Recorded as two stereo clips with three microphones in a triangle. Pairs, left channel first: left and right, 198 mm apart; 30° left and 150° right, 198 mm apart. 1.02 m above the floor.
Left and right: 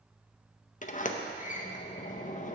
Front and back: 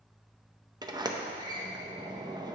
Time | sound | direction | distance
0.8 | a sliding door | 145° left | 0.6 m